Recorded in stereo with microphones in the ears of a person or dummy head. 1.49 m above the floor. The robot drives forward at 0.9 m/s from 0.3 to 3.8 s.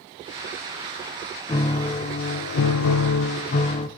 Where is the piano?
25° left (ahead or behind), 1.3 m; by 3.9 s 35° left (ahead or behind), 1.0 m.